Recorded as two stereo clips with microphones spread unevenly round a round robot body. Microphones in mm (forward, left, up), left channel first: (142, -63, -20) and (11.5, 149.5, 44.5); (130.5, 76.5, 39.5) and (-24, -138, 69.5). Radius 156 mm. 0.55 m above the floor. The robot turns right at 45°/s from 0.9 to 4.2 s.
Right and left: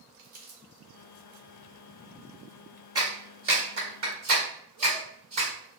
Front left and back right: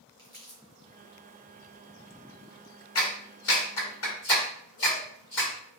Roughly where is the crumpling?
Left.